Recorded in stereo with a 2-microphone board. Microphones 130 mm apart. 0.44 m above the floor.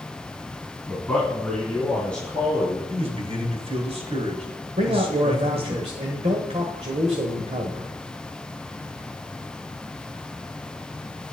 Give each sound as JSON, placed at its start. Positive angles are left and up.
{"t": 0.9, "sound": "a man speaking", "side_deg": 5, "distance_m": 3.5}
{"t": 2.9, "sound": "a man speaking", "side_deg": -50, "distance_m": 2.0}
{"t": 4.8, "sound": "a man speaking", "side_deg": -50, "distance_m": 1.3}